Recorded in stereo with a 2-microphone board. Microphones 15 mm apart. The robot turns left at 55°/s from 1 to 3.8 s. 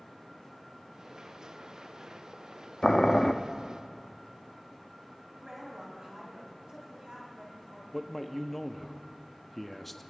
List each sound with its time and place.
2.8 s boiling: 40° left (ahead or behind), 0.5 m; by 3.3 s 30° left (ahead or behind), 0.5 m
5.3 s a woman speaking: 45° right (ahead or behind), 3.5 m
7.9 s a man speaking: 10° left (ahead or behind), 0.6 m